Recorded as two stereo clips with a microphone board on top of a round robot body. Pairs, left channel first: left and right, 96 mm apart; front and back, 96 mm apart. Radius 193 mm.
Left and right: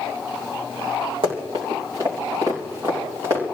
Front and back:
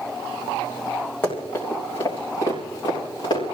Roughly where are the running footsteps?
Ahead right.